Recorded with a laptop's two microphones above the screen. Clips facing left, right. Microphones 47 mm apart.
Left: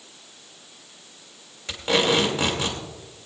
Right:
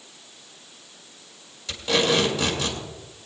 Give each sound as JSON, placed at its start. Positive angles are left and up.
{"t": 1.7, "sound": "tape being pulled", "side_deg": 35, "distance_m": 1.8}